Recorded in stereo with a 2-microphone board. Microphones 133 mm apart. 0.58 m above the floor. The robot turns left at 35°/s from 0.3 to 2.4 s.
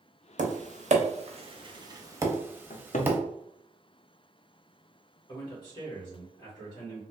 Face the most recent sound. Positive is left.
turn(degrees=35)  # may be behind; listen again after turning